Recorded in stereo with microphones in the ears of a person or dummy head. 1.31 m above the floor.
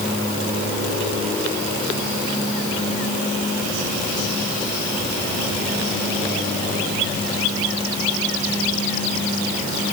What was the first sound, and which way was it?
Only background noise.